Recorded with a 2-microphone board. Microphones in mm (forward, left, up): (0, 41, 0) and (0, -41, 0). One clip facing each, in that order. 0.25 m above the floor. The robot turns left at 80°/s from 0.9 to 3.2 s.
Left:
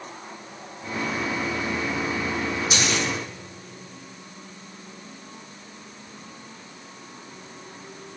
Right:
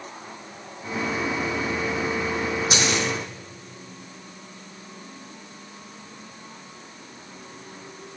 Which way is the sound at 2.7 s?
40° right (ahead or behind).